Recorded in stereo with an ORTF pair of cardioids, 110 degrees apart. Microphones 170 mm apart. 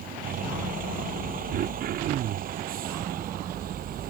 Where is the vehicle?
55° right.